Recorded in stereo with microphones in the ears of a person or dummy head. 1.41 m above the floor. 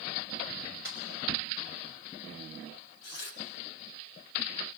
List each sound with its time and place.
0.8 s a snare drum: 20° right (ahead or behind), 3.5 m
3.0 s tearing paper: 55° left (ahead or behind), 2 m